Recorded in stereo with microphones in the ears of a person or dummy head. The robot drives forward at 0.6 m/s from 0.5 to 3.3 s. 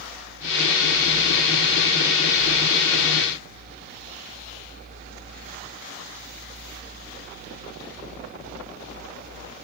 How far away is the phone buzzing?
I don't hear a phone buzzing.